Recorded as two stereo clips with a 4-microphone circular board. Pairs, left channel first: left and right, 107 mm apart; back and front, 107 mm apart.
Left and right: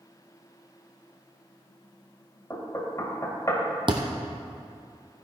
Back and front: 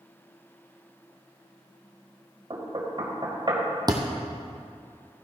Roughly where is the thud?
Ahead right.